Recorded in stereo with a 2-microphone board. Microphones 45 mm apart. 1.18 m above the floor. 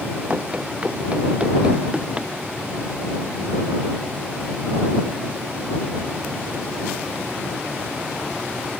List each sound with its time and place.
0.3 s running footsteps: 25° right (ahead or behind); by 2.3 s 20° right (ahead or behind)